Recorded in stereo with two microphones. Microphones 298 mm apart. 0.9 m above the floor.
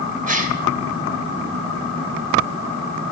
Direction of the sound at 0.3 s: 25° right (ahead or behind).